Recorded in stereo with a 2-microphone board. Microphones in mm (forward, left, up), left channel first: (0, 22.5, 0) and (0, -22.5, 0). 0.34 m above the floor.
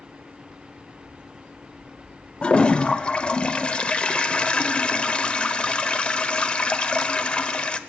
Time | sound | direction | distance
2.4 | a toilet flushing | 25° left (ahead or behind) | 0.7 m